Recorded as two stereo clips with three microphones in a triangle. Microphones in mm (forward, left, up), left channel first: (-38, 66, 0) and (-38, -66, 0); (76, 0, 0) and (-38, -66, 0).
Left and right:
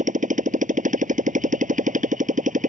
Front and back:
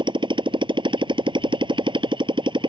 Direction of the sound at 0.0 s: 100° right.